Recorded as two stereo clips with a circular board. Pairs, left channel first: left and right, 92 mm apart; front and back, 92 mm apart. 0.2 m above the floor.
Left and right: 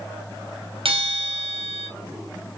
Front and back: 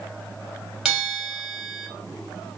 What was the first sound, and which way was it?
A bell, 95° right.